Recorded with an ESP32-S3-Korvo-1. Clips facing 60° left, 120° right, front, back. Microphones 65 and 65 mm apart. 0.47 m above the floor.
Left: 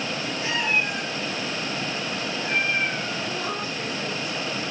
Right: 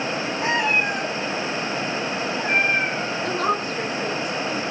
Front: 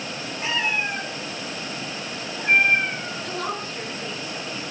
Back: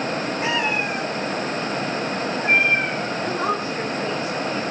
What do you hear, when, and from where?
0.4 s a cat meowing: 105° right, 7.5 m
3.2 s a woman speaking: 110° right, 5.5 m